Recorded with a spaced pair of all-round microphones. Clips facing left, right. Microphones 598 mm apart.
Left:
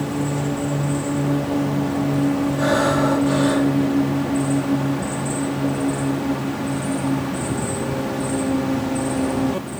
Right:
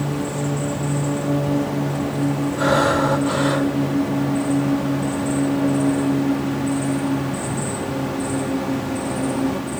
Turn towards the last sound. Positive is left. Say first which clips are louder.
# even
turn(degrees=-70)  # may be behind; listen again after turning